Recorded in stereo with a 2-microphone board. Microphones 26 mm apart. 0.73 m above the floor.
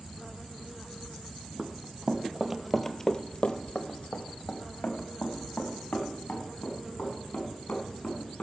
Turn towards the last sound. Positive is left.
turn(degrees=70)  # may be behind; listen again after turning